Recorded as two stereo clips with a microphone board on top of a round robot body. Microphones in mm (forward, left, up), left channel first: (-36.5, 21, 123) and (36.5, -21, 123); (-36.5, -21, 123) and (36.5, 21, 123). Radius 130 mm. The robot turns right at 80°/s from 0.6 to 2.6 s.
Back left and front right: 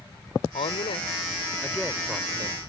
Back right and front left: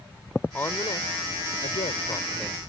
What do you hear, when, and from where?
0.5 s a woman speaking: 140° left; by 2.6 s 60° right